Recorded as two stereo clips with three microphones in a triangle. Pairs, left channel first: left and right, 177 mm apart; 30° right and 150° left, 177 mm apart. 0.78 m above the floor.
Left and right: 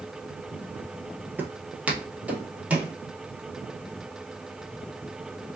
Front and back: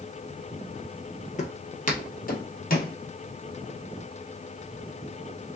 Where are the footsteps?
15° right, 1.0 m; by 2.9 s 5° right, 1.7 m.